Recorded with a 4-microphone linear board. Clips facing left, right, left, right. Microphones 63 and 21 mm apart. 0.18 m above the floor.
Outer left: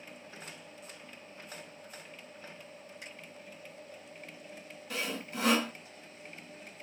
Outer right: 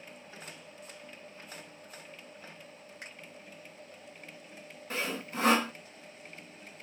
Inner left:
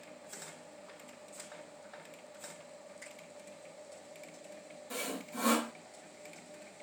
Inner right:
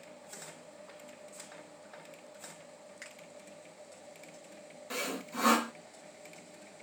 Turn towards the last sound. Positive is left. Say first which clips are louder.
# outer right 2 dB, inner right 3 dB
turn(degrees=-35)  # may be behind; listen again after turning